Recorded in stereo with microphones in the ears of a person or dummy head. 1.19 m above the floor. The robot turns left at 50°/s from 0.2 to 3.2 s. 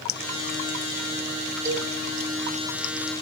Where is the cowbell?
15° right (ahead or behind), 2 m; by 1.9 s 30° right (ahead or behind), 2 m.